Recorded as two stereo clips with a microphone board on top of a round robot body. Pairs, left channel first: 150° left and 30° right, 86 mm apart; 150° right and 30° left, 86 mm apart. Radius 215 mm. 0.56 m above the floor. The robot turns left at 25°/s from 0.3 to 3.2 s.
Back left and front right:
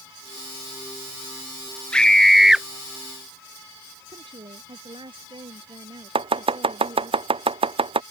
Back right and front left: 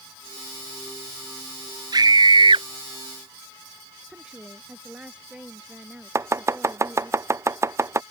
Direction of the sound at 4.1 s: 50° right.